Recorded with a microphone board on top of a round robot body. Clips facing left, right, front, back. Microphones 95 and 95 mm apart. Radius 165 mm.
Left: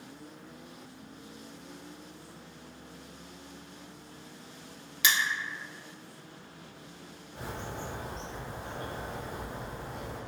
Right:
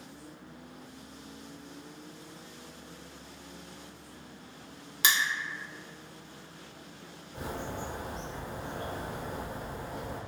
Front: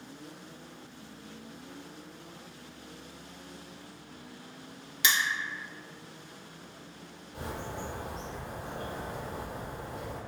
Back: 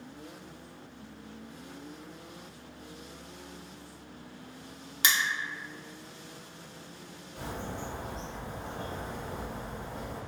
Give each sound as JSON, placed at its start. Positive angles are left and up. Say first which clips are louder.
{"t": 5.0, "sound": "crushing", "louder": "even, even", "azimuth_deg": -135, "distance_m": 1.3}
{"t": 7.3, "sound": "a bird", "louder": "right 2 dB, even", "azimuth_deg": -45, "distance_m": 0.5}